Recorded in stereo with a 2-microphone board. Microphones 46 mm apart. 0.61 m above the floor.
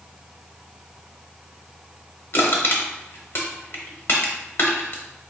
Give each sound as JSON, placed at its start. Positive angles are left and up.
{"t": 2.3, "sound": "crushing", "side_deg": 55, "distance_m": 0.9}